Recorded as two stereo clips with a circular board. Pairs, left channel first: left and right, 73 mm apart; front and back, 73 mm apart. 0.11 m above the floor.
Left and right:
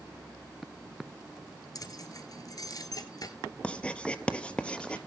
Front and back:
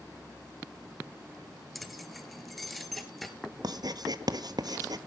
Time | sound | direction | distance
1.8 | keys jangling | 90° left | 1.3 m
3.6 | writing | 165° left | 0.8 m